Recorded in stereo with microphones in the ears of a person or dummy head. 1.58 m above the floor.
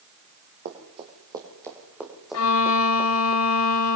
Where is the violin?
80° left, 2 m.